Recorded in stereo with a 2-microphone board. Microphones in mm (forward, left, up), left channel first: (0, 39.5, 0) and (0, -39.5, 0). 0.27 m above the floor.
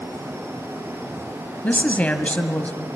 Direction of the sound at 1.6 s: 20° left (ahead or behind).